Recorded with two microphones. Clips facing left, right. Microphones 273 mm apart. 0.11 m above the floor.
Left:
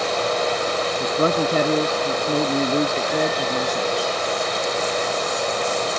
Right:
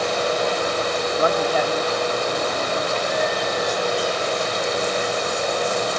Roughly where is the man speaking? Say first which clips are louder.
Left 2 dB; left.